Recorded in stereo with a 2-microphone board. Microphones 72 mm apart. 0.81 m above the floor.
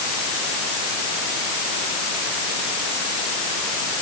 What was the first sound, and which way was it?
Only background noise.